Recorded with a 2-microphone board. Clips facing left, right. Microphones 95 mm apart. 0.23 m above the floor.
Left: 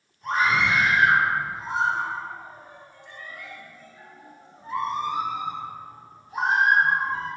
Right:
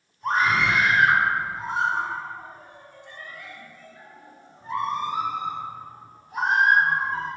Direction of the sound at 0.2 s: 40° right (ahead or behind).